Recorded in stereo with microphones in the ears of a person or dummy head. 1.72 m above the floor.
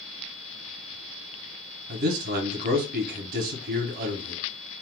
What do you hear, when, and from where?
1.9 s a man speaking: 45° right (ahead or behind), 0.8 m